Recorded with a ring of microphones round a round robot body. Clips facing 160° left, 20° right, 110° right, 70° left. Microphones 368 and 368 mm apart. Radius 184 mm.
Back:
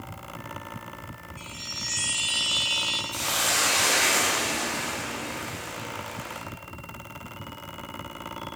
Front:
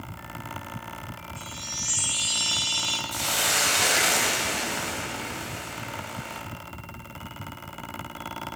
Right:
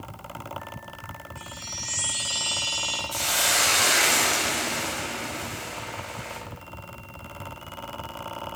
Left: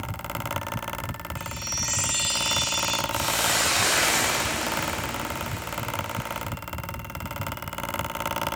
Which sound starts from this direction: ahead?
A chime, at 1.4 s.